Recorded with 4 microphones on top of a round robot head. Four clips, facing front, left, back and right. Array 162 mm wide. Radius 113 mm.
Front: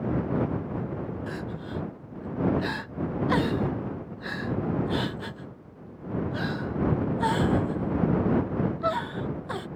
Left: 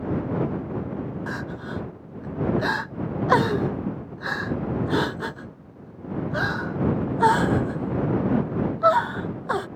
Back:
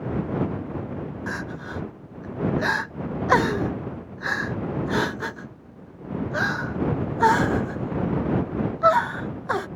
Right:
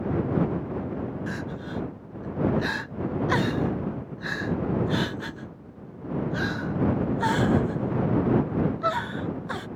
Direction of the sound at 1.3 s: 130° left.